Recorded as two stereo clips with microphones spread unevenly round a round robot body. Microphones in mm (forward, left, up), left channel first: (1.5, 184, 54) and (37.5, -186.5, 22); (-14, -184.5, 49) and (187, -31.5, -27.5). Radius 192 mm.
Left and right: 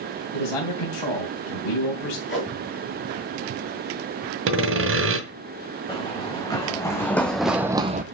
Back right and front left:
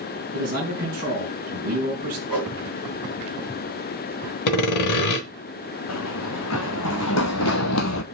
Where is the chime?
No chime in this recording.